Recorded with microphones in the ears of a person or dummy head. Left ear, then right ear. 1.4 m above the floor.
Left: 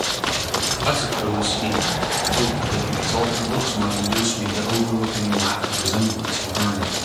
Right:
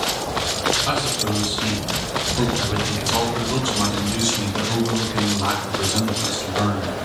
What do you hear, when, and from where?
0.8 s a man speaking: 60° left (ahead or behind), 0.9 m; by 7.0 s 75° right (ahead or behind), 3 m